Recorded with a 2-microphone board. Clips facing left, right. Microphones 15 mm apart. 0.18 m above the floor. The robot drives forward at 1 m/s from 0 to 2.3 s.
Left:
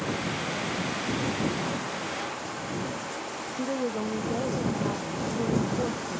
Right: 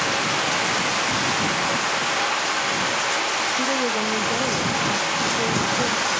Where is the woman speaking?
15° right (ahead or behind).